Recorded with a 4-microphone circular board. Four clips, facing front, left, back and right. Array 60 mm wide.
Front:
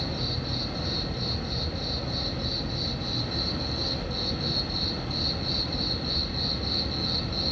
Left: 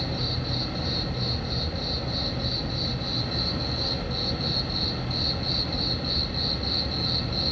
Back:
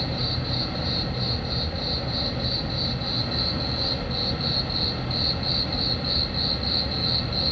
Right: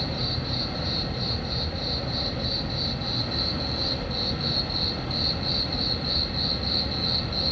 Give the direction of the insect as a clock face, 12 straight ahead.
6 o'clock.